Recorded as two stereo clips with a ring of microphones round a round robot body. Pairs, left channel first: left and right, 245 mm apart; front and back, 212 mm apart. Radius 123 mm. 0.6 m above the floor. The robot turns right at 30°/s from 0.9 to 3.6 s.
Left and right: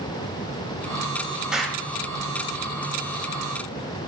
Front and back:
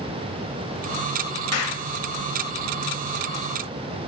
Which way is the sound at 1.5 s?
5° right.